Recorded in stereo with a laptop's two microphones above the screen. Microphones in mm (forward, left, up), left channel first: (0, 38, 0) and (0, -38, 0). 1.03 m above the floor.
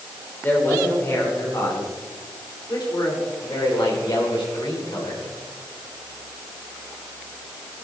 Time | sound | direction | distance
0.4 | a man speaking | 30° left (ahead or behind) | 4 m